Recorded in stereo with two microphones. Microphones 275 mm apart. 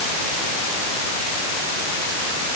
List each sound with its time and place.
Only background noise.